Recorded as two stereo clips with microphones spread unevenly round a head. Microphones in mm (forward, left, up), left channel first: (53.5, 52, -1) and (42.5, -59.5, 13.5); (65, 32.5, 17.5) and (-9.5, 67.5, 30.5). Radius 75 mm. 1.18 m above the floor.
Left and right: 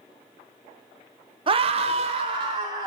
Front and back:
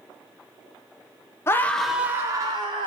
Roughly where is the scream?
Ahead right.